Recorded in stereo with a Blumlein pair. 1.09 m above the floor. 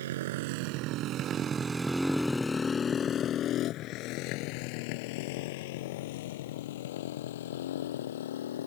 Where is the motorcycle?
60° right; by 8.7 s 60° left.